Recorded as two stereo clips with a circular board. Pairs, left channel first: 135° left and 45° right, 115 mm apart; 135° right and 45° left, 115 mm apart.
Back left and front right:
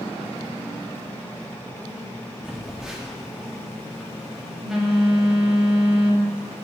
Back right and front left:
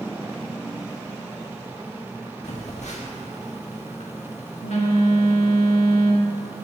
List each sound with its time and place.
2.4 s a phone buzzing: 130° right, 1.8 m